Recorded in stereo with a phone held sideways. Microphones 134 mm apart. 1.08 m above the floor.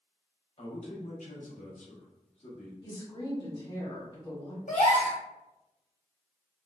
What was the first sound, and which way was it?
A man speaking, 45° left (ahead or behind).